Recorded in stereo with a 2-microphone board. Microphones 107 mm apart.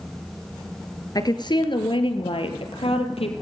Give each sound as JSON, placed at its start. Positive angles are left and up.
{"t": 1.1, "sound": "a woman speaking", "side_deg": 40, "distance_m": 2.5}